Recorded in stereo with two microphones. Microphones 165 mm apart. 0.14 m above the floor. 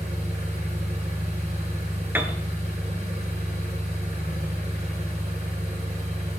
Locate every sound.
0.0 s an engine running: 40° right (ahead or behind), 7.5 m
2.1 s a piano: 10° right (ahead or behind), 1.0 m